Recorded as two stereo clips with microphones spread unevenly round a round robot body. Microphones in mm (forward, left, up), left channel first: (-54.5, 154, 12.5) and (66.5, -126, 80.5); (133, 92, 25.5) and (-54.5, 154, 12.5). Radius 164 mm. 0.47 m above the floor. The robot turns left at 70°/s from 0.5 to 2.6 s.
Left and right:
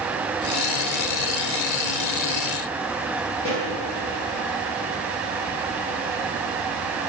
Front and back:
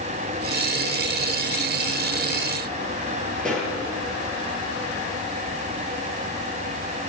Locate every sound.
3.4 s a pop: 70° left, 8.5 m